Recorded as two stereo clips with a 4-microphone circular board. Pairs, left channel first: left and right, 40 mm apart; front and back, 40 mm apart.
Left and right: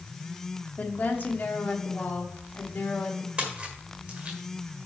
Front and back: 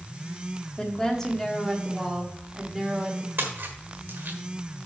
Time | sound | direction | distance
0.8 | a woman speaking | 60° left | 1.4 m
3.4 | a splash | 150° right | 1.5 m